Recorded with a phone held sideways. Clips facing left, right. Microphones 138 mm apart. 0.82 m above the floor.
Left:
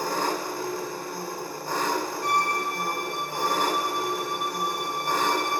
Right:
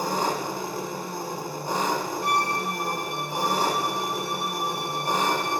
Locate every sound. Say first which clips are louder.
0.0 s an engine running: right 1 dB; 20° right (ahead or behind), 0.9 m
2.2 s a violin: even; 25° right (ahead or behind), 3 m